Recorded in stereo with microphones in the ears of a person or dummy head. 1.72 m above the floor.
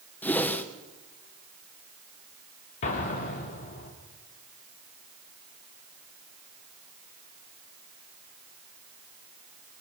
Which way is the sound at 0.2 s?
15° left (ahead or behind).